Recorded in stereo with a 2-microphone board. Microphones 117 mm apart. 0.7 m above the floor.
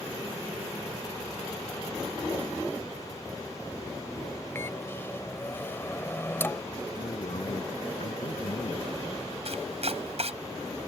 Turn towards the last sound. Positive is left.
turn(degrees=-65)  # may be behind; listen again after turning